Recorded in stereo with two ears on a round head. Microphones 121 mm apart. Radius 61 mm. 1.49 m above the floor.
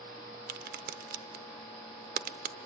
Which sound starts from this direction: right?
A crack, at 0.5 s.